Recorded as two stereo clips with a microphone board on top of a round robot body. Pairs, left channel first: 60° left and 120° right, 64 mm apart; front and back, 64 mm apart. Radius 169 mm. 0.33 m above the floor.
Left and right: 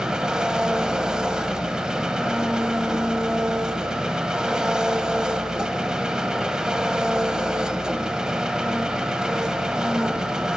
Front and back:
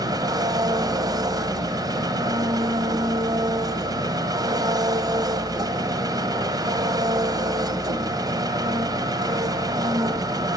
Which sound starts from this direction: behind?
An engine running, at 0.0 s.